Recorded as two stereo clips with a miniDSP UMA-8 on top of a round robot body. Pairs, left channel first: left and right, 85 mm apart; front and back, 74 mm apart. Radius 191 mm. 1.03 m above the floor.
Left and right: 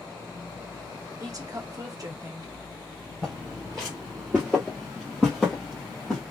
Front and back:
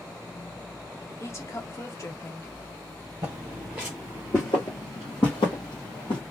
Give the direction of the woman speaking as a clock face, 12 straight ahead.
2 o'clock.